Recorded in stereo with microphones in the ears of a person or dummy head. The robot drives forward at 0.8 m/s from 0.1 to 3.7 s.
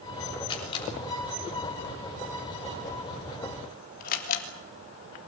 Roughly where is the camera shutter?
Left.